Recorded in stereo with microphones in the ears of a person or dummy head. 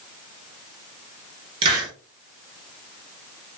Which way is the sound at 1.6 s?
30° right (ahead or behind).